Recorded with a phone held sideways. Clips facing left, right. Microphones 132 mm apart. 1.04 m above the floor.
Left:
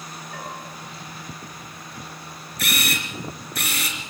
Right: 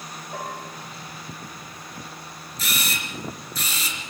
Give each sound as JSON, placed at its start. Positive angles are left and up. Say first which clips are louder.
{"t": 0.3, "sound": "a bell", "louder": "right 3 dB", "side_deg": -35, "distance_m": 7.5}
{"t": 2.6, "sound": "a camera shutter", "louder": "left 4 dB", "side_deg": 65, "distance_m": 3.5}